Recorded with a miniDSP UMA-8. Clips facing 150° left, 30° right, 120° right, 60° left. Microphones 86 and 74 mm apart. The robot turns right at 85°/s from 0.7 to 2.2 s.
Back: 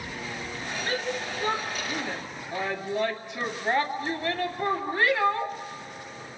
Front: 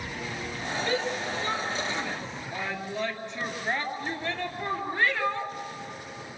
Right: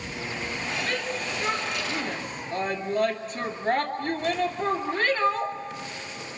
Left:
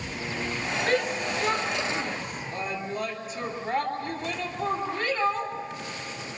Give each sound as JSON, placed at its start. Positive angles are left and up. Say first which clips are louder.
{"t": 0.9, "sound": "a shout", "louder": "front 1 dB, left 4 dB", "azimuth_deg": 115, "distance_m": 2.5}